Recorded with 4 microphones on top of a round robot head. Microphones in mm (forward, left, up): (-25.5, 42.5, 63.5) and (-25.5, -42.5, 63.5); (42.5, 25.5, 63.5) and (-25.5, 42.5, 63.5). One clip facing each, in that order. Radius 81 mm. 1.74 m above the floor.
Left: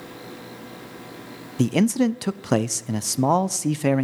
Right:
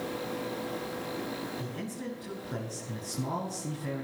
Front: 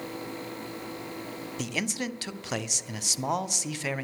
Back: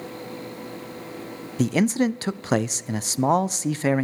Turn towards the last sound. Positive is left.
turn(degrees=110)